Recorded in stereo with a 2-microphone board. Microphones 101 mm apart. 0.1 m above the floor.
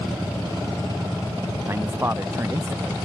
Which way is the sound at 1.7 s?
25° right (ahead or behind).